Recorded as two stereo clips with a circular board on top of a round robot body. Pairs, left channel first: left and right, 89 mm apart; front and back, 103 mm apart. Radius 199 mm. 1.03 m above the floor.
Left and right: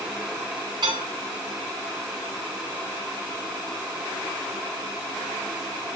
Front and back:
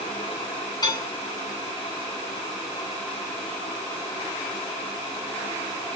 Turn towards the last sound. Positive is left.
turn(degrees=-55)